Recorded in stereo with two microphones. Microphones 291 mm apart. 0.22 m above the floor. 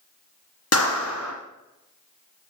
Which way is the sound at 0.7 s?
60° left (ahead or behind).